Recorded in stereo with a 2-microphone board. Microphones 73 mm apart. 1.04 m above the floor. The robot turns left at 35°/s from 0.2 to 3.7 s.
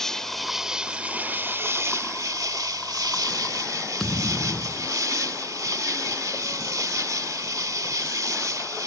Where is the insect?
5° left; by 8.9 s 115° right.